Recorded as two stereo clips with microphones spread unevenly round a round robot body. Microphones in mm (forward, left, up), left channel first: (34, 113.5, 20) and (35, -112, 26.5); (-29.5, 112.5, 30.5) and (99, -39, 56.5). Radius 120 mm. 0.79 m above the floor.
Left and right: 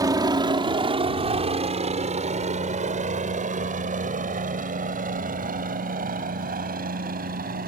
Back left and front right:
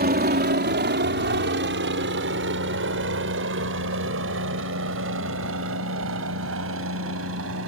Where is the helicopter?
20° right; by 7.7 s 40° right.